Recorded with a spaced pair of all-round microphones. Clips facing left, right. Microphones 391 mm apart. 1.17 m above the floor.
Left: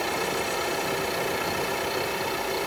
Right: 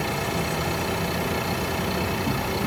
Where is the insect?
70° right (ahead or behind).